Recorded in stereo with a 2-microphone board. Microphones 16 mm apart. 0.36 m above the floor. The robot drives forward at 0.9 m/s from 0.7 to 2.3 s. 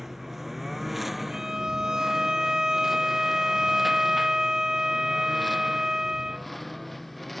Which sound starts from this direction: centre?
A lawn mower, at 0.0 s.